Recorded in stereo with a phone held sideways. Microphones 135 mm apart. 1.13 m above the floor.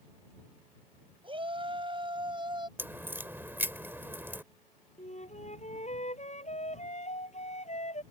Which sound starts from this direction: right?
A shout, at 1.2 s.